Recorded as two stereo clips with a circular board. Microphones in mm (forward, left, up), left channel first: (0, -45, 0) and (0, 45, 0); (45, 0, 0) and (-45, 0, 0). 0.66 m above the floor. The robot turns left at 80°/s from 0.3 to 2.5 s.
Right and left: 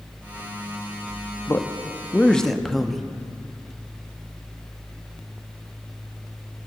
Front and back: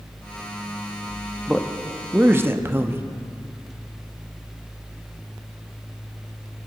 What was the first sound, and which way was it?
A man speaking, 90° right.